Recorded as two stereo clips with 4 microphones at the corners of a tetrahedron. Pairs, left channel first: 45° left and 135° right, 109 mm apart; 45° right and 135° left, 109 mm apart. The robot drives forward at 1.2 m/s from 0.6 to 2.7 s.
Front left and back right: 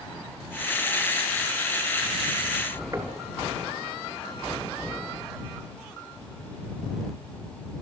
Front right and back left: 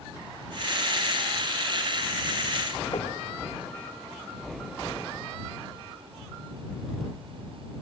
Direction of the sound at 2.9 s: 80° right.